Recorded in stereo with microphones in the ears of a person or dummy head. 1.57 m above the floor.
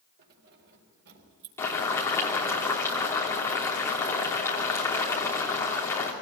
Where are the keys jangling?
60° right (ahead or behind), 3.5 m; by 1.5 s 65° right (ahead or behind), 3 m.